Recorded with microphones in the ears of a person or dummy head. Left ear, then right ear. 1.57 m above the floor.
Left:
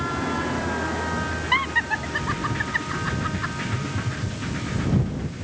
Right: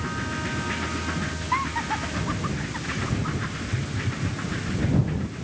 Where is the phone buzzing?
5° left (ahead or behind).